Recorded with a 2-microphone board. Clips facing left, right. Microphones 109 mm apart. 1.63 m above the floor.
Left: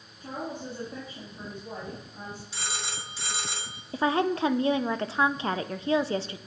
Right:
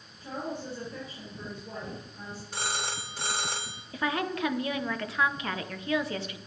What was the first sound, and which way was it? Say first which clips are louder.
A woman speaking: even; 50° left (ahead or behind).